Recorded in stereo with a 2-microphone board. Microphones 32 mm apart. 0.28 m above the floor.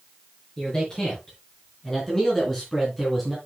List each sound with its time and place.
0.6 s a man speaking: 20° left (ahead or behind), 5 m; by 3.4 s 5° left (ahead or behind), 3 m